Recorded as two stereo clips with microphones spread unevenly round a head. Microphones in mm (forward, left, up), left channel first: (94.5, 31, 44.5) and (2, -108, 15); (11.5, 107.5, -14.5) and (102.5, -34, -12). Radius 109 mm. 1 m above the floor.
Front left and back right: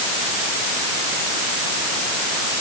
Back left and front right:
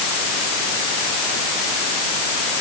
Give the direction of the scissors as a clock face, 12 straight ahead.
No scissors in this recording.